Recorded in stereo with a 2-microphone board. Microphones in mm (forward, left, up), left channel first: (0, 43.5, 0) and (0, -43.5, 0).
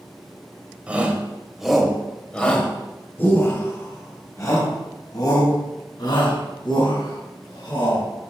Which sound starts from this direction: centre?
A shout, at 0.9 s.